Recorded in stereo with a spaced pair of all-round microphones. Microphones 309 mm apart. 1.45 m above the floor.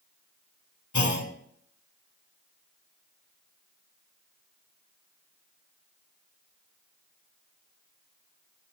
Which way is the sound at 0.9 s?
70° left (ahead or behind).